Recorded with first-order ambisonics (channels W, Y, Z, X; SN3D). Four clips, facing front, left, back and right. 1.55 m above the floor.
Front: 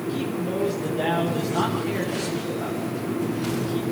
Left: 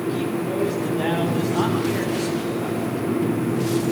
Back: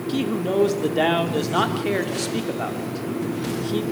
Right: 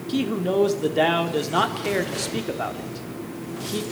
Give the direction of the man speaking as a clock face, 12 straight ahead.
4 o'clock.